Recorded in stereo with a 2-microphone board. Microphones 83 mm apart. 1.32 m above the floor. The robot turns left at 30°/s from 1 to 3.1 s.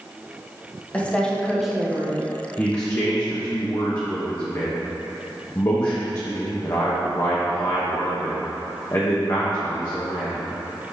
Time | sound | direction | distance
0.9 | a woman speaking | 15° left | 1.2 m
2.6 | a man speaking | 25° left (ahead or behind) | 1.0 m